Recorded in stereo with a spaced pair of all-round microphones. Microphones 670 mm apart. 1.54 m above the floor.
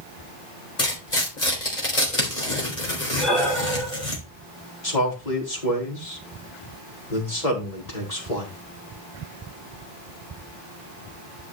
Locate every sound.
0.8 s tearing paper: 80° left, 4.5 m
3.2 s breathing: centre (ahead or behind), 7 m
4.8 s a man speaking: 85° left, 4.5 m